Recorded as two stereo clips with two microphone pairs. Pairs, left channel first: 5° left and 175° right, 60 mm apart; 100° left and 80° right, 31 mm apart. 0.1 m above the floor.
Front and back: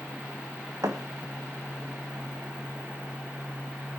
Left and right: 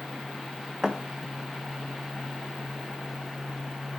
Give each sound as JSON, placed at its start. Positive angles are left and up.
{"t": 0.8, "sound": "a thud", "azimuth_deg": -155, "distance_m": 1.7}